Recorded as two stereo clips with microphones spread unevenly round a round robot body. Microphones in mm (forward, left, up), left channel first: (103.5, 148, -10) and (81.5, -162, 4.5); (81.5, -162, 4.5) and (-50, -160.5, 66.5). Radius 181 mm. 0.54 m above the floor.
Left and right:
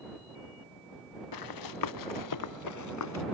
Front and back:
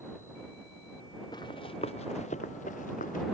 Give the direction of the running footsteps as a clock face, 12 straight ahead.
9 o'clock.